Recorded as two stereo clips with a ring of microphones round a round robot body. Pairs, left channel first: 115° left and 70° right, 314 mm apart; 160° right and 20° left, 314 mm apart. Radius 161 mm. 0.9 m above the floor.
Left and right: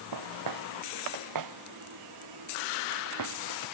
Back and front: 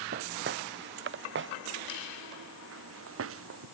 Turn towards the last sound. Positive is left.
turn(degrees=-30)